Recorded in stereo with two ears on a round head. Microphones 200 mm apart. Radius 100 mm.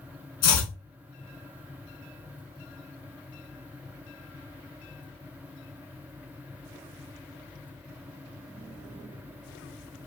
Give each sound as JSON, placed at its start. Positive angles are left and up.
{"t": 0.4, "sound": "chopping", "side_deg": 45, "distance_m": 1.2}